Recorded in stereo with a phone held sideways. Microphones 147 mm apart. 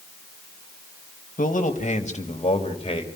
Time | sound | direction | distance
1.4 | a man speaking | 70° left (ahead or behind) | 1.7 m